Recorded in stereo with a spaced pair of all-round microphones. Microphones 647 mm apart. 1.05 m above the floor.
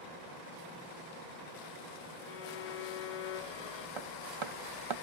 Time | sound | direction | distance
2.3 | a violin | 70° left (ahead or behind) | 0.8 m
4.0 | hammering | 45° right (ahead or behind) | 0.7 m